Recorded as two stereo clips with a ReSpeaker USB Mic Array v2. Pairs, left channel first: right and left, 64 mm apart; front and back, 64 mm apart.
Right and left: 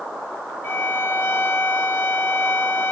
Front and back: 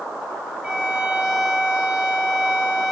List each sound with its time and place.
0.6 s a violin: 125° right, 1.5 m